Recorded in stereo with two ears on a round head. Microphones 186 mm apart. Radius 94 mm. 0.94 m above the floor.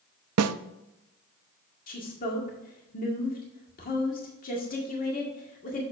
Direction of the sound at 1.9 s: 45° left (ahead or behind).